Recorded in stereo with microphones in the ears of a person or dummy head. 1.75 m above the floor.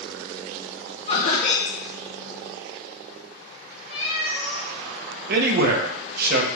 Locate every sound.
1.1 s laughter: 30° left (ahead or behind), 2 m
3.9 s a cat meowing: 30° right (ahead or behind), 1.9 m
5.3 s a man speaking: 50° right (ahead or behind), 0.7 m